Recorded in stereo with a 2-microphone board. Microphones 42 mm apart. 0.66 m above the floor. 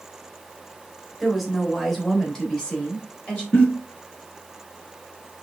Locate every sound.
1.2 s a woman speaking: centre (ahead or behind), 3.5 m; by 3.4 s 30° left (ahead or behind), 3.5 m
3.5 s a giggle: 35° left (ahead or behind), 4 m